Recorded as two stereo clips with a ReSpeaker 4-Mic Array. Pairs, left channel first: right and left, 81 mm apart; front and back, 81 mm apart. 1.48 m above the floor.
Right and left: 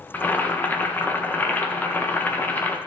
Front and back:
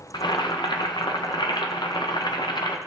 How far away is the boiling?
About 1.4 m.